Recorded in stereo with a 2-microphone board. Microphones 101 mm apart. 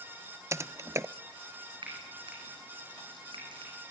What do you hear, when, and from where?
0.5 s typing on a keyboard: 30° right (ahead or behind), 0.6 m
1.8 s frying: 55° right (ahead or behind), 7 m